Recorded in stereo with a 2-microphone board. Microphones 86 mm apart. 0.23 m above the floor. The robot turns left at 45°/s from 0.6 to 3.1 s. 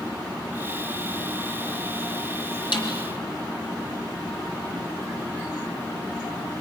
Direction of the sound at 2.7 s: 70° left (ahead or behind).